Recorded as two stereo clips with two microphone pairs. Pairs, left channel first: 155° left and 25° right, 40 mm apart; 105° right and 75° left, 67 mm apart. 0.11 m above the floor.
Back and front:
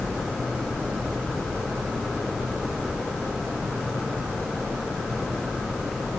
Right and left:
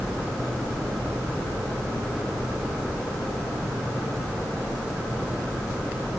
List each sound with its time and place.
Only background noise.